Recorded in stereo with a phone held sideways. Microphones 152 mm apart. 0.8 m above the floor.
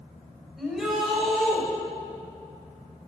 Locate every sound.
0.6 s a shout: centre (ahead or behind), 4.5 m